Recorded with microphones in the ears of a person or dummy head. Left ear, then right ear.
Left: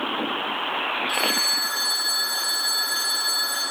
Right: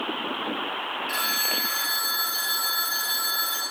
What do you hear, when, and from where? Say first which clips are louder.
1.1 s a phone ringing: left 2 dB; 15° right (ahead or behind), 0.9 m